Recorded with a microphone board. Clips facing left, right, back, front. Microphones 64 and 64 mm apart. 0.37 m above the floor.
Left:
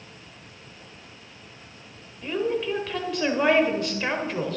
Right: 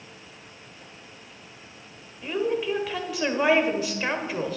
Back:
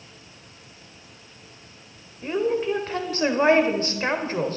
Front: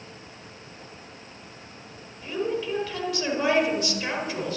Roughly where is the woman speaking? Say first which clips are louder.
Even, back 5 dB; behind.